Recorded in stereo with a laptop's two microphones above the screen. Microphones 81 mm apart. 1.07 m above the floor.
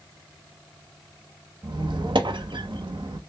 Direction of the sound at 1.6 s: 70° right (ahead or behind).